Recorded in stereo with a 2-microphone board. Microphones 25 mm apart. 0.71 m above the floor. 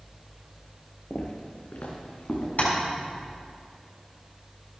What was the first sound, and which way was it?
Footsteps, 60° left (ahead or behind).